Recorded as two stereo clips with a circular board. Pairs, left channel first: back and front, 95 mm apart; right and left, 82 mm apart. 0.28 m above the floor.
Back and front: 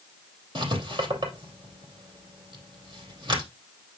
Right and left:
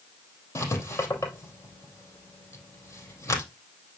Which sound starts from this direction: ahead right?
Writing, at 0.6 s.